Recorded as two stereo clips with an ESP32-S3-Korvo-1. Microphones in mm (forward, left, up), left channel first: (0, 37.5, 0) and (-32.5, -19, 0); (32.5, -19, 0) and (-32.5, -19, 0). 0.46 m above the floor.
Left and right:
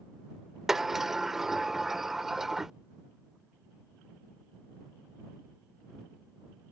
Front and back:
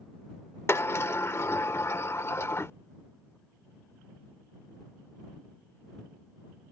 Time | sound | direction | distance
0.7 | a sliding door | 40° right | ?